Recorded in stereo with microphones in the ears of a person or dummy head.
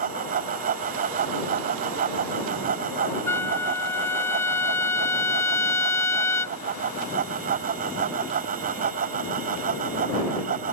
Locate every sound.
0.0 s a fan: 45° right (ahead or behind)
3.3 s a trumpet: 10° left (ahead or behind)